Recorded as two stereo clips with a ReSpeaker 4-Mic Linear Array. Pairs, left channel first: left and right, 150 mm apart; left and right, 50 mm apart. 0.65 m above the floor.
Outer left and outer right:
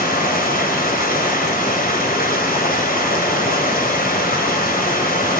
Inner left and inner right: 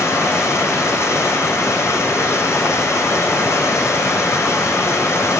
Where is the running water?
75° left (ahead or behind), 3.5 m.